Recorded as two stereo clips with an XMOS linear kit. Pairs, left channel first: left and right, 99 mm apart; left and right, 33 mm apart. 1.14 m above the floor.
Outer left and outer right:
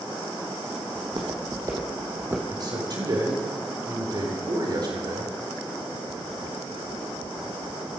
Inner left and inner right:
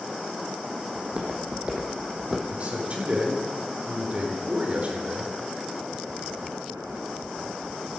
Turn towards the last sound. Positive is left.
turn(degrees=-45)  # may be behind; listen again after turning